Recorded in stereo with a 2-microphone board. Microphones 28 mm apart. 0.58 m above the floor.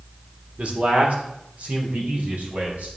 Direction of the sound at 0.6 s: 55° right (ahead or behind).